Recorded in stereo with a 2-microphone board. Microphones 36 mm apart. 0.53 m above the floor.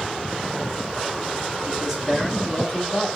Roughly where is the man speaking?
Right.